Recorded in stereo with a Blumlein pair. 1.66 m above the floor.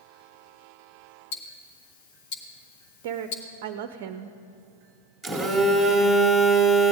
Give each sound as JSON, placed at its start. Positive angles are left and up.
{"t": 1.3, "sound": "ticking", "azimuth_deg": 50, "distance_m": 1.3}
{"t": 3.0, "sound": "a woman speaking", "azimuth_deg": -50, "distance_m": 0.5}
{"t": 5.2, "sound": "a phone buzzing", "azimuth_deg": 0, "distance_m": 1.9}